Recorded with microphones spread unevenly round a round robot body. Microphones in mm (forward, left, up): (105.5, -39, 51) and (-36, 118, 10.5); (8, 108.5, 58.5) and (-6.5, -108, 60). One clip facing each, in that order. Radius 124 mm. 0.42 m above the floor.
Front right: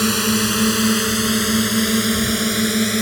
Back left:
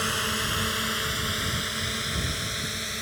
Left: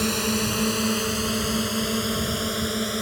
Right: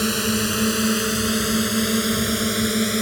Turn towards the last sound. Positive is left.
turn(degrees=-30)